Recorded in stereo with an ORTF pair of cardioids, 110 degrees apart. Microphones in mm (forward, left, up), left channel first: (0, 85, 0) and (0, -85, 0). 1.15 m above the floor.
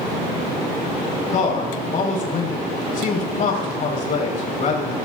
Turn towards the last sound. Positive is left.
turn(degrees=50)